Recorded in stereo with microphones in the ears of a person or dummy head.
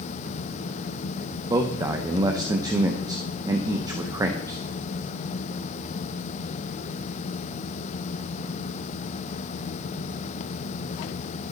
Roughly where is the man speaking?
Centre.